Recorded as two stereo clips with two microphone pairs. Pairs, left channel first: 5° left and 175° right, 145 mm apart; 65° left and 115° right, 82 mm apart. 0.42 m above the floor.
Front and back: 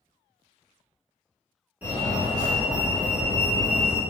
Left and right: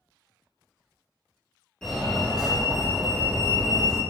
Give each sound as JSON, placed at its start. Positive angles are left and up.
{"t": 1.8, "sound": "a fire alarm", "azimuth_deg": 125, "distance_m": 1.8}